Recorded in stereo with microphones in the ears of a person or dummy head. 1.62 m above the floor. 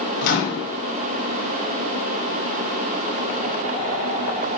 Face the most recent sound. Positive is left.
turn(degrees=50)  # may be behind; listen again after turning